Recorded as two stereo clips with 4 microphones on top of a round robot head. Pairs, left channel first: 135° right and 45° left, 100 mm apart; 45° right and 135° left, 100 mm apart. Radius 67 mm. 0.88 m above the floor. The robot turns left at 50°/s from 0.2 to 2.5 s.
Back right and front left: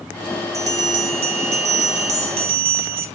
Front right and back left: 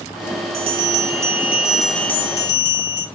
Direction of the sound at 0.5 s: 105° left.